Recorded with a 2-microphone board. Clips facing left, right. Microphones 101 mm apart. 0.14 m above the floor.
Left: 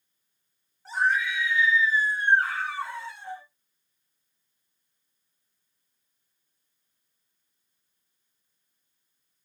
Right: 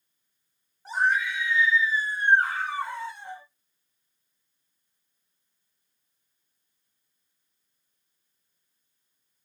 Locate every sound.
0.8 s a scream: 15° right (ahead or behind), 1.6 m